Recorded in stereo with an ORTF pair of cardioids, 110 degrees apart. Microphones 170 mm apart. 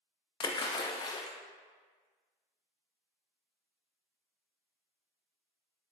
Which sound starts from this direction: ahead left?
A splash, at 0.4 s.